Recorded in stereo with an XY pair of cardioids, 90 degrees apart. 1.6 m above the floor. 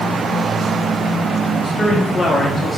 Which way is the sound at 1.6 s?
45° left.